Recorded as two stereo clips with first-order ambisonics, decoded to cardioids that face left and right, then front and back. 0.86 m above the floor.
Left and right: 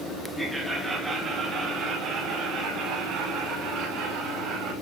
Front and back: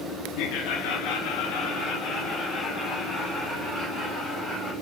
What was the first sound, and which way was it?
Laughter, 5° left.